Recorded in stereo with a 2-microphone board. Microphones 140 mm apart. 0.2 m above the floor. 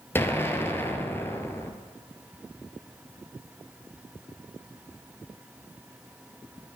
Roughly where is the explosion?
Centre.